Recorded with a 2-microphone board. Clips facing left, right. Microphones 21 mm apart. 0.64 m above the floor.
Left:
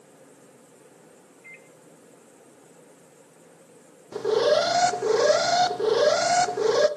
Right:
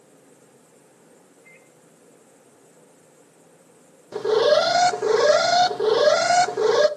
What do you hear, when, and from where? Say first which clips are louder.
1.4 s a microwave: left 6 dB; 70° left (ahead or behind), 3 m
4.1 s an alarm: right 3 dB; 20° right (ahead or behind), 0.8 m